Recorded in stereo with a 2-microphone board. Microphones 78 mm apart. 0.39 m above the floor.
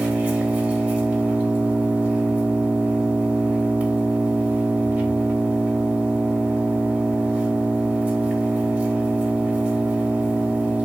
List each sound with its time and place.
0.0 s an engine running: 15° right (ahead or behind), 0.7 m